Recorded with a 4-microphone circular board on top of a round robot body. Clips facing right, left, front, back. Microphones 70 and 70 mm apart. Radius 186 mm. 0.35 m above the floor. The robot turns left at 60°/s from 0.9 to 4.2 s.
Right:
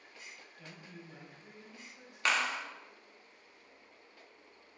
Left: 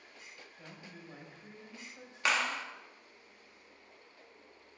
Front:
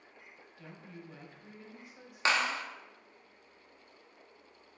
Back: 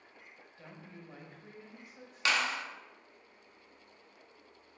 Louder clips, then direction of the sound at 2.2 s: Even, front 2 dB; 10° left.